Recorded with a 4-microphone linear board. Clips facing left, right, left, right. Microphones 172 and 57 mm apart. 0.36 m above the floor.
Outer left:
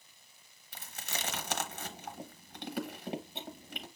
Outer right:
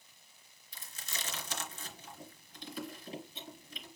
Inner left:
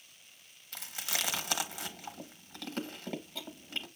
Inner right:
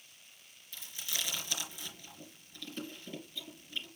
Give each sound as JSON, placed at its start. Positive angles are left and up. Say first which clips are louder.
{"t": 0.7, "sound": "chewing", "louder": "outer left 5 dB, inner left 4 dB", "side_deg": 65, "distance_m": 0.8}